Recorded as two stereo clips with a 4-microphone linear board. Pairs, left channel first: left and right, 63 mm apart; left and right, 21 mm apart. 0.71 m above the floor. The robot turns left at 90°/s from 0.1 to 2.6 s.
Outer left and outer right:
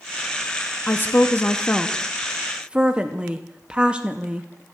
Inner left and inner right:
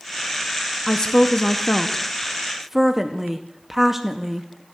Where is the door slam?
I don't hear a door slam.